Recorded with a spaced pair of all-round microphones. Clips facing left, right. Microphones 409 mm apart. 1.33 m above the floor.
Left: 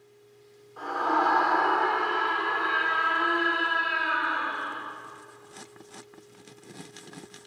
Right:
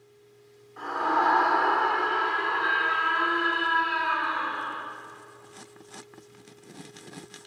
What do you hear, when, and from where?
0.8 s a scream: 40° right (ahead or behind), 4.5 m; by 4.8 s 5° right (ahead or behind), 3 m